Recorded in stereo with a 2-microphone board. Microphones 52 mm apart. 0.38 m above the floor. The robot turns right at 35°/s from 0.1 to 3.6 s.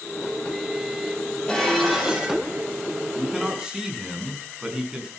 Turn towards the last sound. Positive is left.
turn(degrees=-15)  # may be behind; listen again after turning